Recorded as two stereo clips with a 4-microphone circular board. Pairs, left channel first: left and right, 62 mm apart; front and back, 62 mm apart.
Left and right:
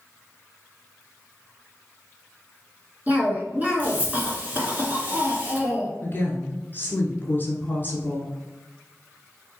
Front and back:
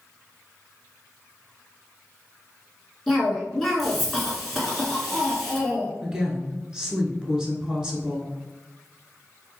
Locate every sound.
3.1 s a cough: 90° right, 1.4 m
6.0 s a woman speaking: 105° left, 1.2 m